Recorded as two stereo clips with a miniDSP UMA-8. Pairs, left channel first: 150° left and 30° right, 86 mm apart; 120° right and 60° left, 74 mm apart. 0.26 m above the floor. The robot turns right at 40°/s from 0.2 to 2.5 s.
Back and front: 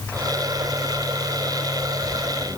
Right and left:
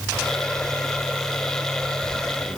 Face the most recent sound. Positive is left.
No sound to turn to.